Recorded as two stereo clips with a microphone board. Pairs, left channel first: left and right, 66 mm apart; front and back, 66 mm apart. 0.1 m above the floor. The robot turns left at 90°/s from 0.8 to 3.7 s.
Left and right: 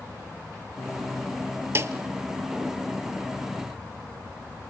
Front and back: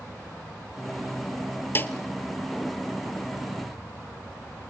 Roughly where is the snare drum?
Ahead right.